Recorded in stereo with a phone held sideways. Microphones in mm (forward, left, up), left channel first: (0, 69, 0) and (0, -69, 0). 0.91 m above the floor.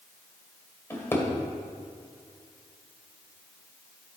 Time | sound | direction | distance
0.9 | a drawer | 15° left (ahead or behind) | 1.8 m